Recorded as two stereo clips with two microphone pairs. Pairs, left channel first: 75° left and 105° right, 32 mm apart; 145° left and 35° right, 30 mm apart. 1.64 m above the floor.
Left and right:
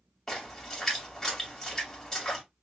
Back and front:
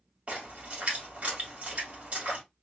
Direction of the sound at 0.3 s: 10° left.